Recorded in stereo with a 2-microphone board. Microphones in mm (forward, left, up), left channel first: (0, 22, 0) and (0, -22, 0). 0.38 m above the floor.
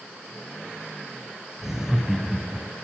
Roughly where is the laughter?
Centre.